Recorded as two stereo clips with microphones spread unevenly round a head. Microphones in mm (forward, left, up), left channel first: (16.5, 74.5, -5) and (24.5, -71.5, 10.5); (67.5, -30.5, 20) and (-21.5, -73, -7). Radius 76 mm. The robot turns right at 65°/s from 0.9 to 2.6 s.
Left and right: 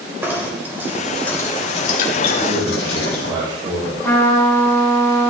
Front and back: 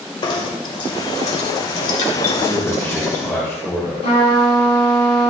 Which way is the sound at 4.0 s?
20° left.